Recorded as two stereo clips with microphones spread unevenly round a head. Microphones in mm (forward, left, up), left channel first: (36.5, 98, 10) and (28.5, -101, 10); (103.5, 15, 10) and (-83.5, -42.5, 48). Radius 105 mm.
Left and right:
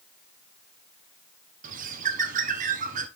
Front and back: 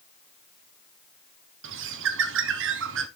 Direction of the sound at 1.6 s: 145° right.